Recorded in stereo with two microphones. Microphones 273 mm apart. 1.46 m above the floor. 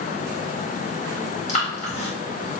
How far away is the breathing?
About 1.5 m.